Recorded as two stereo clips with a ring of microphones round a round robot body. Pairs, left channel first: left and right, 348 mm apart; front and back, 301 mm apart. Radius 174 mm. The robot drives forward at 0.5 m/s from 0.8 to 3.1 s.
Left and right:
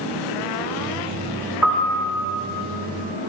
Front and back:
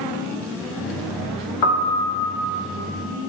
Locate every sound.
1.6 s a piano: 5° right, 1.2 m